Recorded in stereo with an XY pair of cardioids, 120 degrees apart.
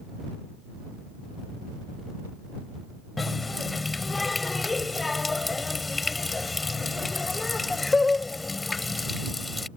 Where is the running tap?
20° left.